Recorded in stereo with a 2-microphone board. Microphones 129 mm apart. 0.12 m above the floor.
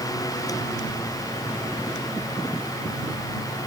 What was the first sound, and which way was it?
Only background noise.